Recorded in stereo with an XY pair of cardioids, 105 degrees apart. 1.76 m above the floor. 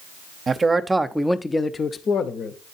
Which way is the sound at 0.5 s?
35° right.